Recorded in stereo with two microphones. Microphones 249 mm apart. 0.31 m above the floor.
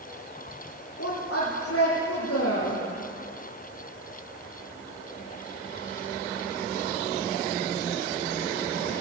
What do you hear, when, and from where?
1.0 s a woman speaking: 70° left (ahead or behind), 6.5 m